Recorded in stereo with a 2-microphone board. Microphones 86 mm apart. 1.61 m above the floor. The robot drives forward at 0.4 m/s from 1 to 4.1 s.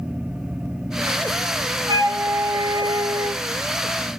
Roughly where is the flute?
Right.